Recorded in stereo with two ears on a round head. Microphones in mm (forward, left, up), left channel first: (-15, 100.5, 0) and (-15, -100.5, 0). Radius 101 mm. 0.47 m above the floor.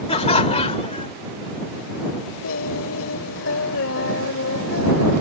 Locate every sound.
0.1 s laughter: 25° left (ahead or behind)
2.4 s singing: 65° left (ahead or behind)